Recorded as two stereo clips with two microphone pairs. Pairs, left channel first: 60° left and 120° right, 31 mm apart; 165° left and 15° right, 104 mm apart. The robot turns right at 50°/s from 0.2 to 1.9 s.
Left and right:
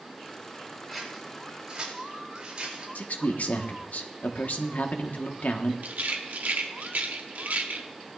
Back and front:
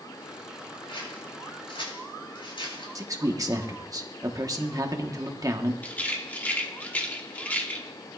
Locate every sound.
0.9 s scissors: 140° left, 4.5 m; by 2.9 s 170° right, 4.5 m
3.0 s a man speaking: 40° left, 1.2 m
5.8 s a rattle: 125° right, 1.3 m